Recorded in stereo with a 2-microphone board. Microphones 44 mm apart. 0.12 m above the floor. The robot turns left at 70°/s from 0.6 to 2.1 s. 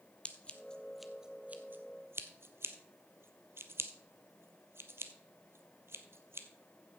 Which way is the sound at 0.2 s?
25° left (ahead or behind).